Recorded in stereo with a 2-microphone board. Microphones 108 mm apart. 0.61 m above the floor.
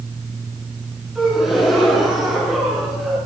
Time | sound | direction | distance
1.1 | a gasp | 5° right (ahead or behind) | 7.5 m